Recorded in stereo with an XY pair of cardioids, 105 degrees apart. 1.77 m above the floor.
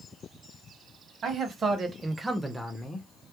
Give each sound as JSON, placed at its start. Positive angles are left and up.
{"t": 1.2, "sound": "a man speaking", "azimuth_deg": -50, "distance_m": 1.1}